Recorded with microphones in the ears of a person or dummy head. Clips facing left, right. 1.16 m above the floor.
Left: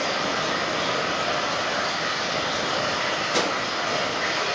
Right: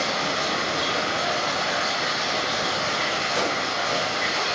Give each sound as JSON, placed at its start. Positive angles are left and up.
{"t": 0.0, "sound": "running water", "side_deg": -45, "distance_m": 2.5}
{"t": 3.3, "sound": "a whoosh", "side_deg": 55, "distance_m": 0.7}